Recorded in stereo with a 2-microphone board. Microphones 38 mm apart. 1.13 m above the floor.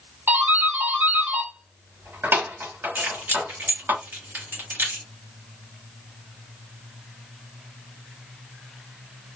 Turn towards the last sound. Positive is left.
turn(degrees=-80)